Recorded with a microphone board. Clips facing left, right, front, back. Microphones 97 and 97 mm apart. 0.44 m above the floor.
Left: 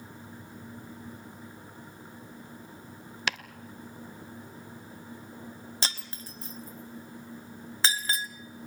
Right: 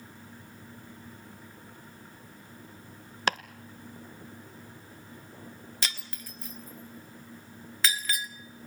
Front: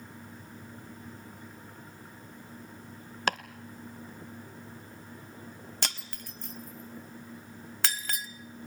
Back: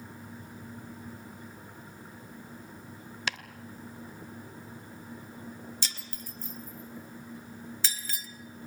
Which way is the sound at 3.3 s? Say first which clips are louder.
Right 5 dB, front 7 dB; 40° right.